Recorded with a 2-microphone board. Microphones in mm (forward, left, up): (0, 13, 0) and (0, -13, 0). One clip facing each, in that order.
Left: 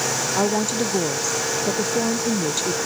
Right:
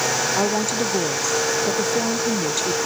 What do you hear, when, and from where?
0.3 s a woman speaking: centre (ahead or behind)